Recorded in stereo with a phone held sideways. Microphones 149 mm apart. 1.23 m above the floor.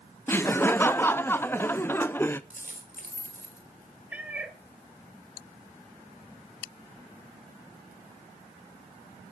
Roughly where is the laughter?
Centre.